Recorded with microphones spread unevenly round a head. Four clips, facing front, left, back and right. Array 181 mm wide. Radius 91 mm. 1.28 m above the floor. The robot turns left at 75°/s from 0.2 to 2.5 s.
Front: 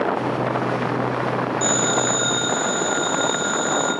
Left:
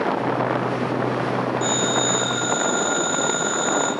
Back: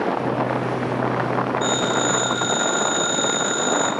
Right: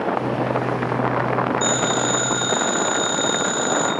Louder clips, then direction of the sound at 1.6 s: Right 1 dB, even; 30° right.